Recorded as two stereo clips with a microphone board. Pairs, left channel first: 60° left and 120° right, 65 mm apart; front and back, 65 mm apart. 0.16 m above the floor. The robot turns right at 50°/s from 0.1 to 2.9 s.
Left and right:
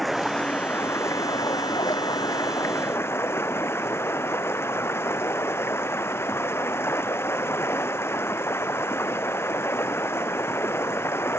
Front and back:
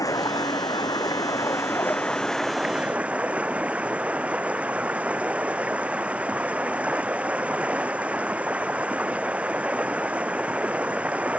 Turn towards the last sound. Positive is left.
turn(degrees=110)